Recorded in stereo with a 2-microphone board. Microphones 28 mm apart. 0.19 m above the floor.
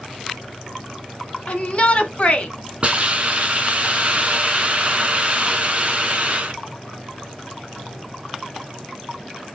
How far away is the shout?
About 1.7 m.